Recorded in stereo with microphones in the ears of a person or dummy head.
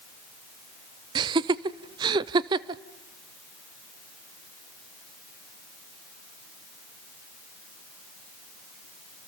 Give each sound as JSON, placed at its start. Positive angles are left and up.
{"t": 1.1, "sound": "laughter", "side_deg": -25, "distance_m": 0.7}